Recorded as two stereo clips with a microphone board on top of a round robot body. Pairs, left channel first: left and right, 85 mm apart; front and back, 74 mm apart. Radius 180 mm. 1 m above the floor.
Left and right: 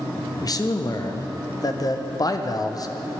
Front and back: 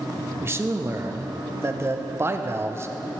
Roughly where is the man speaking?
Behind left.